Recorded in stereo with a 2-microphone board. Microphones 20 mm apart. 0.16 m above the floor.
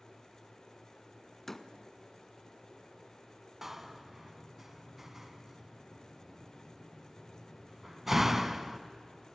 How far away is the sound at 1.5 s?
About 1.3 m.